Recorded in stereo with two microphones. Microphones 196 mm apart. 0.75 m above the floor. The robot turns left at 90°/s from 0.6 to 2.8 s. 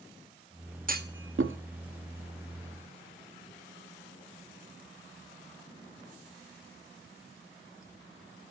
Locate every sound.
0.9 s a clunk: 40° right (ahead or behind), 0.7 m; by 1.6 s 65° right (ahead or behind), 0.7 m